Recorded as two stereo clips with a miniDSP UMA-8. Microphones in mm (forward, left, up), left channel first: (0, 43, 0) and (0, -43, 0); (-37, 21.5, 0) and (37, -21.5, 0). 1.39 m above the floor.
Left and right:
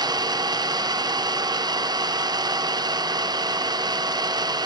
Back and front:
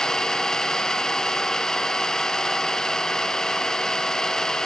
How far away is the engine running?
About 0.9 m.